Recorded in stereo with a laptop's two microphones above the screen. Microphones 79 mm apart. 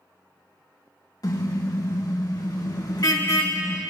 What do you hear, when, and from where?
1.2 s a car horn: 50° left (ahead or behind), 3.5 m; by 3.8 s 60° left (ahead or behind), 2 m